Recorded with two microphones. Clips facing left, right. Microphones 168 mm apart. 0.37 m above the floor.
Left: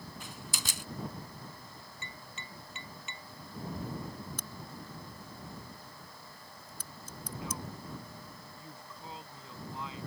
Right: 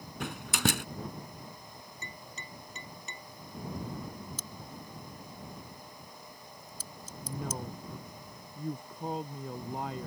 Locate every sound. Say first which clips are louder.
0.2 s a door slam: right 17 dB; 70° right (ahead or behind)
2.0 s tapping: right 2 dB; 40° right (ahead or behind)
4.4 s a crack: even; 60° left (ahead or behind)
7.2 s a woman speaking: right 4 dB; 55° right (ahead or behind)